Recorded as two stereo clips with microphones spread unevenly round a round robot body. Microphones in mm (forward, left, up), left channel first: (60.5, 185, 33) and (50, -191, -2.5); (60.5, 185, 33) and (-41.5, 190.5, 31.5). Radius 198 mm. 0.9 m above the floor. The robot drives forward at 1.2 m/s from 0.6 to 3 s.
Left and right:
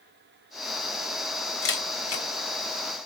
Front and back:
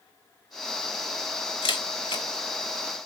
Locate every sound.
1.6 s a camera shutter: 30° left, 3.5 m; by 2.2 s 35° left, 3 m